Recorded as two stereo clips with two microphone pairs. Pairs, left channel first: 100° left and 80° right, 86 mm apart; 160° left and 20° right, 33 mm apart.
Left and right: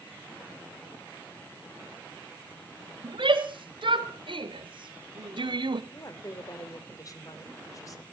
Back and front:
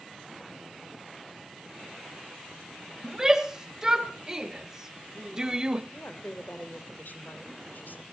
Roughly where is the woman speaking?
Behind left.